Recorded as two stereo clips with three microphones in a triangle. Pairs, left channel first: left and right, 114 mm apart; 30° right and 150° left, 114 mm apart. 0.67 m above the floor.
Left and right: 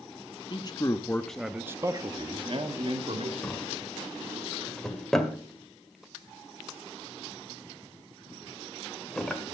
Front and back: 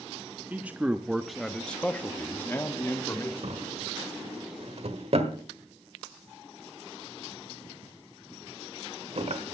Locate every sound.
0.5 s a man speaking: 85° left, 1.0 m; by 3.3 s 95° right, 1.8 m
3.4 s a drawer: 175° left, 1.6 m